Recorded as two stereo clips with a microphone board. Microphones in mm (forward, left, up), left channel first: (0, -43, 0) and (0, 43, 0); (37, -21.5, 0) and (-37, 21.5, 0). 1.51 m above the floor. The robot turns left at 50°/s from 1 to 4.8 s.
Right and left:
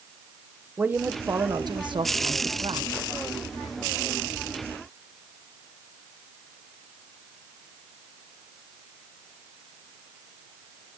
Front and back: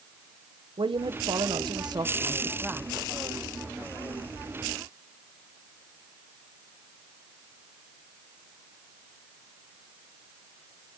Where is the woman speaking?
160° left, 1.2 m; by 2.9 s 65° left, 1.2 m.